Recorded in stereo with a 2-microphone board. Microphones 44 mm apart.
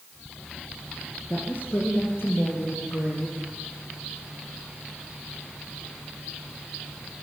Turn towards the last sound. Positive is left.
turn(degrees=65)  # may be behind; listen again after turning